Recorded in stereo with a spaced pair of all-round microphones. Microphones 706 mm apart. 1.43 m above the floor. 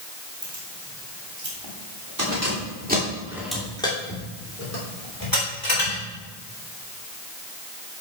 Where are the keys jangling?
55° right (ahead or behind), 4 m; by 6.0 s 35° left (ahead or behind), 4 m.